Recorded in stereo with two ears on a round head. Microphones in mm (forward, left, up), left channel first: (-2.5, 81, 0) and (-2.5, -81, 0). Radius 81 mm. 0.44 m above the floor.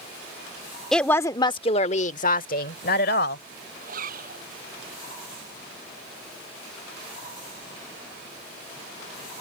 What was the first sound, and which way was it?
A woman speaking, 5° left (ahead or behind).